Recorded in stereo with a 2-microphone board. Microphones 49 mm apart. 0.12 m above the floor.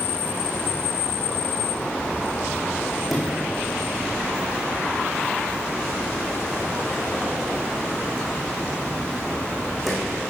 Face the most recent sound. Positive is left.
turn(degrees=0)  # may be behind; listen again after turning